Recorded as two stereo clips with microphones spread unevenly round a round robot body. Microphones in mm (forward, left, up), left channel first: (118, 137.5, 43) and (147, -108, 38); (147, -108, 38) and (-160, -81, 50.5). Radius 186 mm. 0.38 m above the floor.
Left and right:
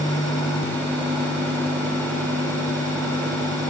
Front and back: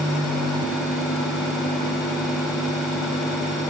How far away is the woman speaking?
I don't hear a woman speaking.